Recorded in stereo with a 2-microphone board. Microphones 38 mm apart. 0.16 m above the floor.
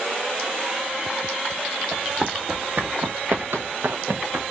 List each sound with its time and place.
1.9 s running footsteps: 30° right (ahead or behind), 1.4 m; by 4.4 s 80° right, 1.1 m